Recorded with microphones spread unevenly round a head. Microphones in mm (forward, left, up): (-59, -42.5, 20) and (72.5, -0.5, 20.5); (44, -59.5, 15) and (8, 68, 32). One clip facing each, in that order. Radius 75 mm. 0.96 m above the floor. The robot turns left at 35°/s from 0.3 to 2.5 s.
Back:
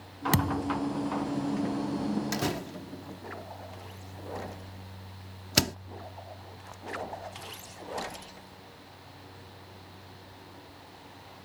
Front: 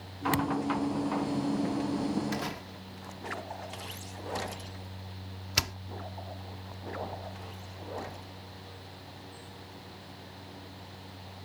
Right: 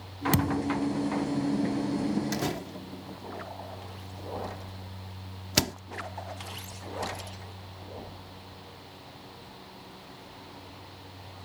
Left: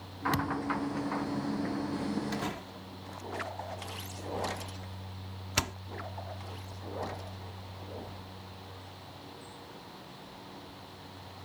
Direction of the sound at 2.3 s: 120° right.